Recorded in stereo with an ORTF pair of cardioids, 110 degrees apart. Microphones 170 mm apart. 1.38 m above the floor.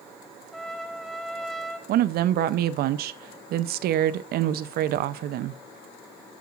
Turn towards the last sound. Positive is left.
turn(degrees=-65)